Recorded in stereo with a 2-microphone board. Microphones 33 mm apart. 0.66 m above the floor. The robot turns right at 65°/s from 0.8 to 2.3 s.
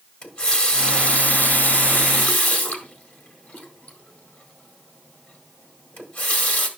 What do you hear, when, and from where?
0.2 s a running tap: 20° left (ahead or behind), 1.8 m; by 6.7 s 60° left (ahead or behind), 1.8 m